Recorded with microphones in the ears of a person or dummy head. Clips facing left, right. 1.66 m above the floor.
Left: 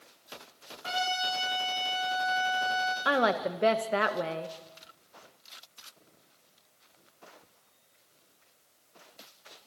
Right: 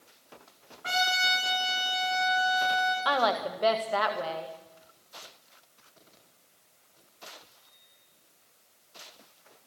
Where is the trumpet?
35° right (ahead or behind), 7 m.